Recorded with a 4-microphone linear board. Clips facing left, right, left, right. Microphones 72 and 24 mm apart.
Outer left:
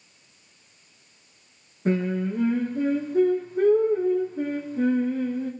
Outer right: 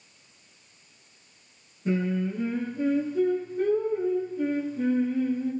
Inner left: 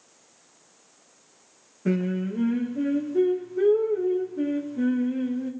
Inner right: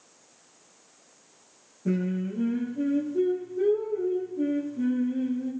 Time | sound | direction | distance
1.9 | singing | 60° left (ahead or behind) | 5 m